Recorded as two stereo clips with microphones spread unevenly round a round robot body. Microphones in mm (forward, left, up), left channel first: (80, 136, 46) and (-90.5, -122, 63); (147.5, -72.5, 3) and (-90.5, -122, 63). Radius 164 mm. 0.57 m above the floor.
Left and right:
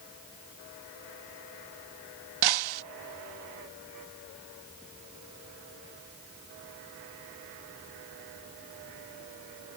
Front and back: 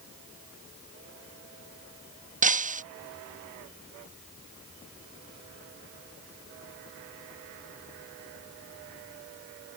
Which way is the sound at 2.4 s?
110° right.